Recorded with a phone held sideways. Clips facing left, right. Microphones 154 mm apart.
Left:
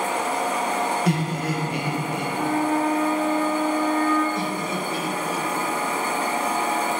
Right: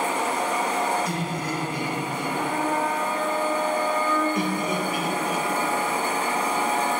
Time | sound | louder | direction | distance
1.1 | laughter | left 4 dB | 65° left (ahead or behind) | 1.3 m
2.4 | a flute | left 4 dB | centre (ahead or behind) | 0.7 m
4.3 | laughter | right 1 dB | 15° right (ahead or behind) | 0.9 m